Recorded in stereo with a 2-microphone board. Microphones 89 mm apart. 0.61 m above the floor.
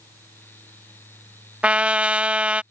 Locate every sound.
1.6 s a trumpet: 15° right (ahead or behind)